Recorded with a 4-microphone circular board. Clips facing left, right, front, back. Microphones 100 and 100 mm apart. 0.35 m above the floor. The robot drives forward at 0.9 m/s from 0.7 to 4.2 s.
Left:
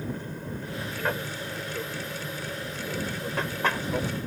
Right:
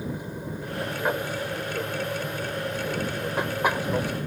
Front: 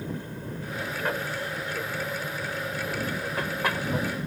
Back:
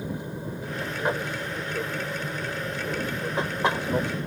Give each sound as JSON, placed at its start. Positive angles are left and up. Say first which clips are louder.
{"t": 0.0, "sound": "an aircraft", "louder": "right 2 dB, back 2 dB", "azimuth_deg": -145}